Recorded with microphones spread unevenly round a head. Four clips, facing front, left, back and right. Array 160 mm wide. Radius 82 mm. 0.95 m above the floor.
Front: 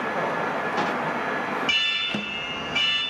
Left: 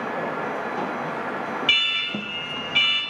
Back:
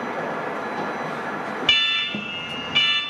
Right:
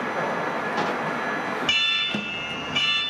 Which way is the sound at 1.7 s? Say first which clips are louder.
Even, back 2 dB; 170° right.